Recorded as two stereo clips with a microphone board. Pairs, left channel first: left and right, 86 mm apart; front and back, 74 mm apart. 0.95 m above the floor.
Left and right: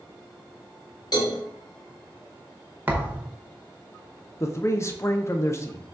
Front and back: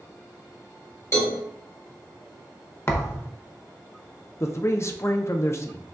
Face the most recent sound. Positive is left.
turn(degrees=40)